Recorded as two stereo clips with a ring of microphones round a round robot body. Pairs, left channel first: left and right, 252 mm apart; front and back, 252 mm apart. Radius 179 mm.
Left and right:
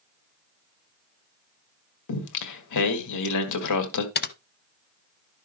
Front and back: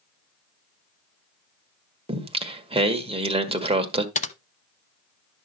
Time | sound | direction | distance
2.1 | singing | 110° left | 1.6 m
4.2 | typing on a keyboard | 55° left | 0.9 m